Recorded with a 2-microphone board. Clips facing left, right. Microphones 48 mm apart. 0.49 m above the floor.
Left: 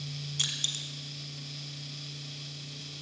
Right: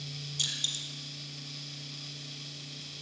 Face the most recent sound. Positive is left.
turn(degrees=50)  # may be behind; listen again after turning